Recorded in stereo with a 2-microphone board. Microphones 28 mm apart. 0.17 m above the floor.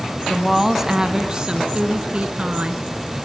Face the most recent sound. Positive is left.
turn(degrees=-45)  # may be behind; listen again after turning